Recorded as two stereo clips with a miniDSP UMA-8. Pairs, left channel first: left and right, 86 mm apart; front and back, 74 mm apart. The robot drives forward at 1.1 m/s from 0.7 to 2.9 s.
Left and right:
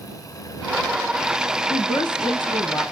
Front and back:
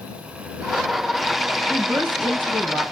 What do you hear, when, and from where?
1.7 s a woman speaking: 110° left, 4.5 m; by 2.8 s 120° left, 5 m